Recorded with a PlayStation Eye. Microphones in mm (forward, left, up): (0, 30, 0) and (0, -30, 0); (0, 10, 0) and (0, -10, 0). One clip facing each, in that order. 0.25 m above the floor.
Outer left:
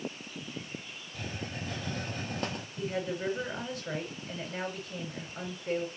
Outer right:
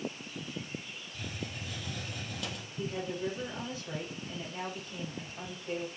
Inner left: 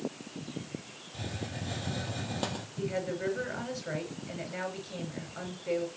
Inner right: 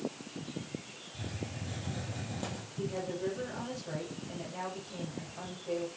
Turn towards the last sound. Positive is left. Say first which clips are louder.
# outer left 2 dB, inner left 2 dB
turn(degrees=60)  # may be behind; listen again after turning